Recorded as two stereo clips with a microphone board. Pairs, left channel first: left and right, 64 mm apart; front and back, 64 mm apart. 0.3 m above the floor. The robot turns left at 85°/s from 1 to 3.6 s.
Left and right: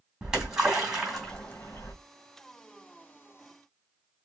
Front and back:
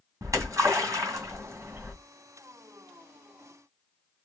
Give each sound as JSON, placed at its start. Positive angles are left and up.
{"t": 0.2, "sound": "a splash", "azimuth_deg": -160, "distance_m": 2.5}